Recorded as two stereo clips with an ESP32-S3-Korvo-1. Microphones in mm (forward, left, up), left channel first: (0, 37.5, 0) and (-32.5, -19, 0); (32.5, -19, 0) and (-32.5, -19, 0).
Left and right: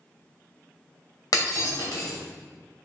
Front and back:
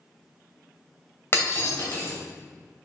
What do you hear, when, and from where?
1.3 s breaking glass: 50° left, 2 m